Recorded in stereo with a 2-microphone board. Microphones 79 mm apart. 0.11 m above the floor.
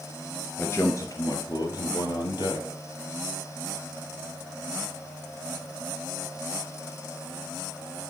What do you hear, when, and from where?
0.6 s a man speaking: 30° left (ahead or behind), 1.2 m; by 2.7 s 65° left (ahead or behind), 2.5 m